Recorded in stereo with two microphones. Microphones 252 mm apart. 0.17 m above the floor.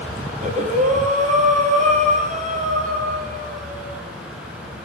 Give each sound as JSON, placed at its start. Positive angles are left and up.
{"t": 0.3, "sound": "breathing", "side_deg": -30, "distance_m": 4.5}